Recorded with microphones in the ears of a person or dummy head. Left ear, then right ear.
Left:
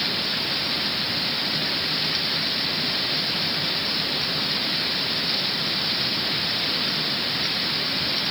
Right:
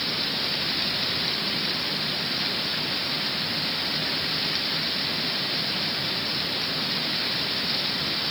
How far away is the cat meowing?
I don't hear a cat meowing.